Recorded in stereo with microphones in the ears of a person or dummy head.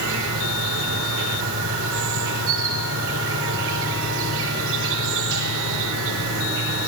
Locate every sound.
0.0 s an insect: 75° right (ahead or behind), 4 m